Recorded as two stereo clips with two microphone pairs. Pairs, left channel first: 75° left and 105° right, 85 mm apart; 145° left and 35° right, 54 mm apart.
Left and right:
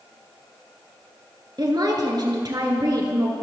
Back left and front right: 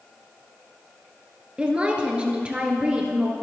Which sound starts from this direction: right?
A woman speaking, at 1.6 s.